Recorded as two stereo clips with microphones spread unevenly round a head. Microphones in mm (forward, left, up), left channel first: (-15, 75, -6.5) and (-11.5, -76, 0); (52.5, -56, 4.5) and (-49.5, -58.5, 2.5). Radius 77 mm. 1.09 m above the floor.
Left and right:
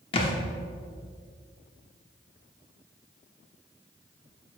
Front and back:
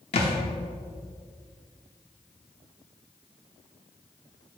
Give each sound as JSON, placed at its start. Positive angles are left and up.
{"t": 0.1, "sound": "a thud", "azimuth_deg": 35, "distance_m": 1.0}